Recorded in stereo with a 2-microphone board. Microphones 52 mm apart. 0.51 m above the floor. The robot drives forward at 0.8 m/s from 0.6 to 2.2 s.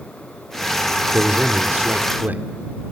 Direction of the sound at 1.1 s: 35° right (ahead or behind).